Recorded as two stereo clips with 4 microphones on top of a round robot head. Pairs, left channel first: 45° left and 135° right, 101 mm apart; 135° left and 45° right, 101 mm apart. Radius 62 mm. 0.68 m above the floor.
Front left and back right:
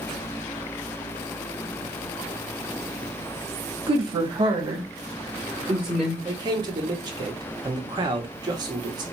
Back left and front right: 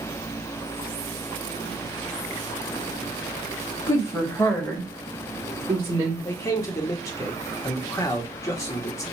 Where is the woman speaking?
175° right, 1.7 m; by 6.2 s 60° right, 1.3 m.